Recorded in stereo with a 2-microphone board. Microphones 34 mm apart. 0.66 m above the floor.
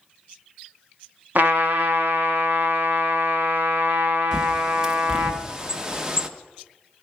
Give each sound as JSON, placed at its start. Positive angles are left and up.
{"t": 1.4, "sound": "a trumpet", "side_deg": -60, "distance_m": 1.2}
{"t": 4.3, "sound": "a bird", "side_deg": -20, "distance_m": 0.6}